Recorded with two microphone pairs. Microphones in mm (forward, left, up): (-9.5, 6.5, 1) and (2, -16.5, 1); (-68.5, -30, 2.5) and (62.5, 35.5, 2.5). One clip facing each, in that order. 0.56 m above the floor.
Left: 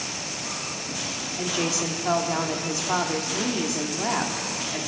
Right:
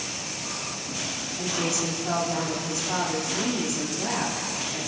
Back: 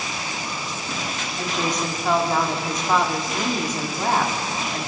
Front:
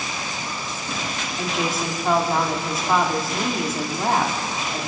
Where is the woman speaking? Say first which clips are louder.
Left 1 dB, even; 110° left, 1.4 m.